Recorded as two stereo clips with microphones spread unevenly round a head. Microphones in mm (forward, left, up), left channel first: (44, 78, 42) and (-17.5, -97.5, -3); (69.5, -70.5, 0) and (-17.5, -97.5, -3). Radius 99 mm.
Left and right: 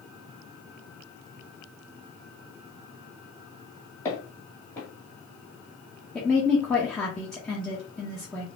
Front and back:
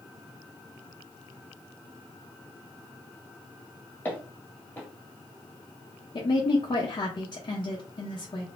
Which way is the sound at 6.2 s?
20° right.